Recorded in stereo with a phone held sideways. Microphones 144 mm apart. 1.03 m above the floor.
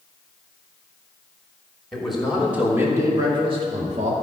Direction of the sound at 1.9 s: Centre (ahead or behind).